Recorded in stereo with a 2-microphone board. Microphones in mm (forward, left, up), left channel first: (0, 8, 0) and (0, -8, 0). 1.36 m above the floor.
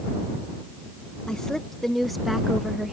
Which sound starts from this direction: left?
A woman speaking, at 1.3 s.